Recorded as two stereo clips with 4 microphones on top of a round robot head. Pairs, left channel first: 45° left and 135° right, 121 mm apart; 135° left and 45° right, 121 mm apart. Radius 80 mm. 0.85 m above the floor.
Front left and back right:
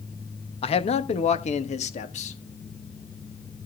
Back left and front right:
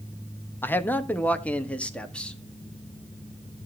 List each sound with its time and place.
0.6 s a man speaking: 65° left, 1.3 m; by 2.4 s 50° left, 2 m